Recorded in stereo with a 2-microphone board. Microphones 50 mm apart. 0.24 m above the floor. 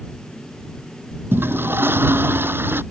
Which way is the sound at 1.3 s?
50° right (ahead or behind).